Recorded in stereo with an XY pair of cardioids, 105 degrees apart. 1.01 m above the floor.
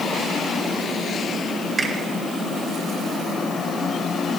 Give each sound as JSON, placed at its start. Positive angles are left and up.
{"t": 1.8, "sound": "a finger snap", "azimuth_deg": -35, "distance_m": 3.0}